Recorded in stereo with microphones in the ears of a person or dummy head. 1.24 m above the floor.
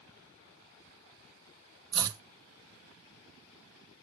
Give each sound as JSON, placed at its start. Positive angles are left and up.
{"t": 1.9, "sound": "chopping", "side_deg": -20, "distance_m": 0.8}